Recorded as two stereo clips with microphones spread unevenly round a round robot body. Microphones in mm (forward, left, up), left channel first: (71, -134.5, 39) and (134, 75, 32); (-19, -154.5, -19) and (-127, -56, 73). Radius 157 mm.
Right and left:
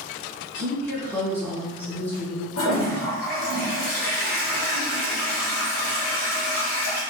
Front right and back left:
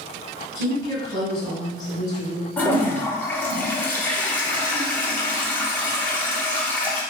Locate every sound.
0.6 s a woman speaking: 25° right, 1.9 m
2.6 s a toilet flushing: 105° right, 0.9 m